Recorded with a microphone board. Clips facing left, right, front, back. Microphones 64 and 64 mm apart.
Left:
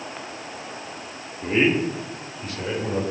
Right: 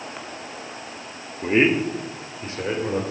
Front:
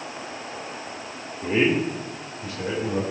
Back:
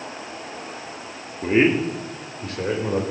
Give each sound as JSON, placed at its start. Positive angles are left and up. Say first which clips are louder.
{"t": 1.4, "sound": "a man speaking", "louder": "right 2 dB, back 3 dB", "azimuth_deg": -140, "distance_m": 1.3}